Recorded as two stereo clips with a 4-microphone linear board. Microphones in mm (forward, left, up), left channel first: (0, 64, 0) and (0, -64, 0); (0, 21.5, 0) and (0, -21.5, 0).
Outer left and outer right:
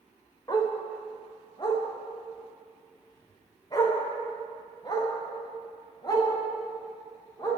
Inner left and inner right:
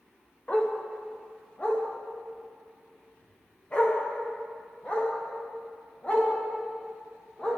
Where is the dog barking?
30° left (ahead or behind), 5.5 m.